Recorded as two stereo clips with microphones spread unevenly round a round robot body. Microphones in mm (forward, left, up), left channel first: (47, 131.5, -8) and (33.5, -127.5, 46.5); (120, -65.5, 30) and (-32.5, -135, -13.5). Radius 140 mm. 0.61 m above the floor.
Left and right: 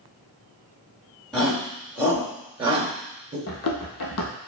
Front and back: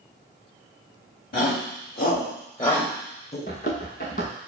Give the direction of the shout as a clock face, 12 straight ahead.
12 o'clock.